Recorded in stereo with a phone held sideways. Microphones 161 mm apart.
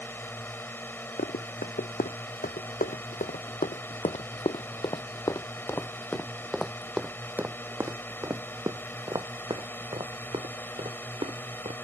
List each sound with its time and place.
0.0 s a drone: 15° left (ahead or behind)
1.2 s running footsteps: 75° left (ahead or behind); by 11.7 s 40° right (ahead or behind)